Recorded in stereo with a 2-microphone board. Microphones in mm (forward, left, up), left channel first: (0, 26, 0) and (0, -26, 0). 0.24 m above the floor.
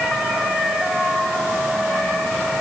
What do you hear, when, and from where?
Only background noise.